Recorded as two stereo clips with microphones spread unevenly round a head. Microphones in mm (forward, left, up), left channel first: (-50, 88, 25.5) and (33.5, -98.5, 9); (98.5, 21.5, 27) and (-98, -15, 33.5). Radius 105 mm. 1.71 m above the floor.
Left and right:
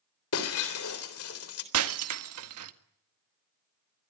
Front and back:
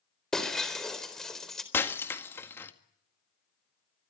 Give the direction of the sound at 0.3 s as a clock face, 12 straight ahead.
9 o'clock.